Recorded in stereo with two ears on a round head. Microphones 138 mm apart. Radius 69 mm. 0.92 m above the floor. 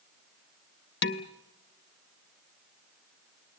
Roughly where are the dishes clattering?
Left.